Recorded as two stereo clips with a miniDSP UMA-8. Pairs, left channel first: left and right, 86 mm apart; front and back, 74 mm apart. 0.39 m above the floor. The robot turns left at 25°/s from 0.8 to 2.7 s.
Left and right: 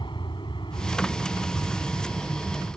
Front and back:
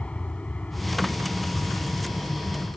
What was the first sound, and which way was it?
An aircraft, 75° left.